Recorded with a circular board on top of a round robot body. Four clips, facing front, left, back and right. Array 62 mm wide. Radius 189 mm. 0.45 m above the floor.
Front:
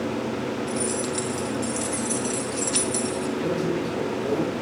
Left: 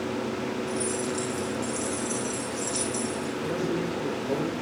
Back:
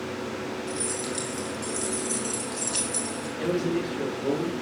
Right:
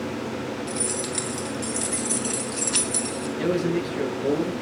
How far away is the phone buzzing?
I don't hear a phone buzzing.